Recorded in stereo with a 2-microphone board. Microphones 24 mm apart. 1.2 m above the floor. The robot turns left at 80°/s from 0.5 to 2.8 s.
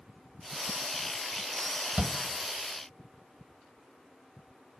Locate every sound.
2.0 s a shout: 65° right (ahead or behind), 1.2 m; by 2.2 s 50° right (ahead or behind), 1.2 m